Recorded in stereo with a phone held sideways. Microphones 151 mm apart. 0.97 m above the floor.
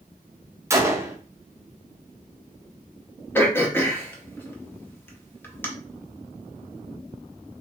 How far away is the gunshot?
About 0.5 m.